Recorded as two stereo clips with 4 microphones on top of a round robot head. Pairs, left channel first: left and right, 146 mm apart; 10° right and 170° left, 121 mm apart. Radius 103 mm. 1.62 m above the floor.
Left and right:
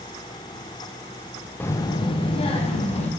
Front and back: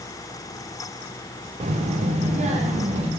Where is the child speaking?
165° left, 0.5 m; by 3.1 s 135° left, 1.7 m.